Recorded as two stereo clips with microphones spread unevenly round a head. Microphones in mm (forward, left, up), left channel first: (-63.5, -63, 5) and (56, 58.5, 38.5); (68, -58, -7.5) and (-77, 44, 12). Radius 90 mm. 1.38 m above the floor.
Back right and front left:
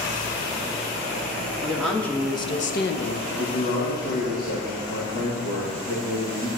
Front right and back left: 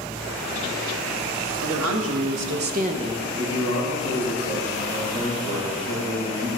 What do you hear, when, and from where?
1.6 s a woman speaking: 130° left, 2.0 m; by 3.3 s 135° right, 1.1 m
3.4 s a man speaking: 170° right, 2.5 m